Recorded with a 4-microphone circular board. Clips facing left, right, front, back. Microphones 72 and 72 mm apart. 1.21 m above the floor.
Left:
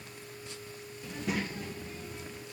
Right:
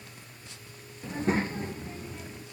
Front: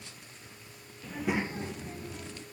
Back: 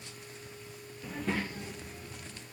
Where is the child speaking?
110° right, 0.6 m; by 2.4 s 30° right, 1.4 m.